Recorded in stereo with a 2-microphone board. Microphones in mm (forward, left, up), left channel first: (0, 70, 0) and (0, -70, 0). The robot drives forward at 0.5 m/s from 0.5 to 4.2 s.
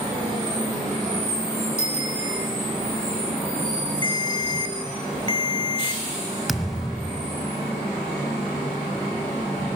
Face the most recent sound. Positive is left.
turn(degrees=0)  # may be behind; listen again after turning